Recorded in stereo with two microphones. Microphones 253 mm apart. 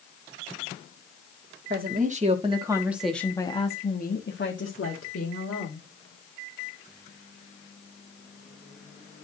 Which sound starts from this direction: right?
A woman speaking, at 1.7 s.